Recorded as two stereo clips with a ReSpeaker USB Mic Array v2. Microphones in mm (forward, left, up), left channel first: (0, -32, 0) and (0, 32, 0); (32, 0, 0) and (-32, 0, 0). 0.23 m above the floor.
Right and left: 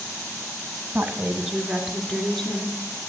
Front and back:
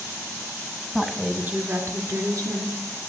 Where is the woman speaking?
95° left, 1.2 m; by 2.8 s 170° right, 2.5 m.